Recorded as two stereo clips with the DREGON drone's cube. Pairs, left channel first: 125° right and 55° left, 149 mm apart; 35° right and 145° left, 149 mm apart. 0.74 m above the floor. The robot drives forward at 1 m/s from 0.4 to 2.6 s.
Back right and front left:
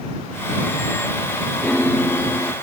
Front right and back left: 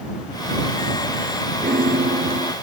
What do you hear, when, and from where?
1.6 s a piano: 155° left